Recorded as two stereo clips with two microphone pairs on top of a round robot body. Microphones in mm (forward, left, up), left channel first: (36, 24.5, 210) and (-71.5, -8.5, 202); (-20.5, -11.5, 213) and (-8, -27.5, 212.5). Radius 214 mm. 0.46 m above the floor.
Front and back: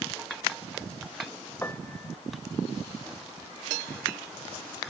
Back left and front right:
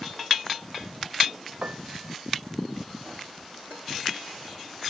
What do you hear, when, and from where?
1.6 s a piano: 55° right